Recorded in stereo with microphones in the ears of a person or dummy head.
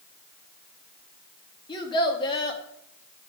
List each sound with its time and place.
1.7 s a child speaking: 30° left (ahead or behind), 1.3 m